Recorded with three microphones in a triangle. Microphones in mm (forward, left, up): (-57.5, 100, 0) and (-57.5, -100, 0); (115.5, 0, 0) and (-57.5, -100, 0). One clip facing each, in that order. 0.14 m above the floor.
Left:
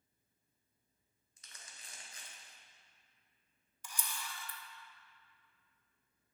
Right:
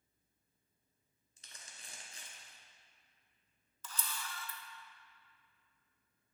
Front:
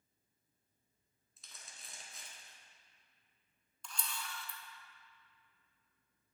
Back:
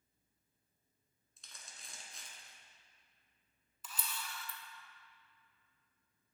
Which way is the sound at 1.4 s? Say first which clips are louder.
Right 1 dB, even; 55° right.